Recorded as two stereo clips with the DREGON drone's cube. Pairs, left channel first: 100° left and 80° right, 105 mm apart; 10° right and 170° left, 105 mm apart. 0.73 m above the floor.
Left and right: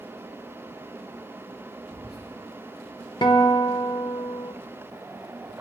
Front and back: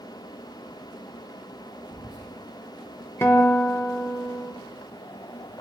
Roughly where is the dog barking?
I don't hear a dog barking.